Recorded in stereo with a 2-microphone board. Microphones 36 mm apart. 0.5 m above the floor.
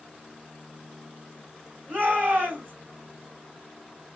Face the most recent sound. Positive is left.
turn(degrees=-55)  # may be behind; listen again after turning